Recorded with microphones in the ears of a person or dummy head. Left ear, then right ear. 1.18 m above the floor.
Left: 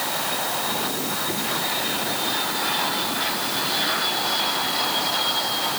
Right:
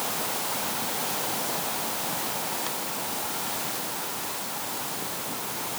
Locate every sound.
Only background noise.